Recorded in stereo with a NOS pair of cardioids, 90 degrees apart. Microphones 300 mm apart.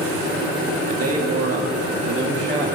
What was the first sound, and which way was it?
A man speaking, 55° right.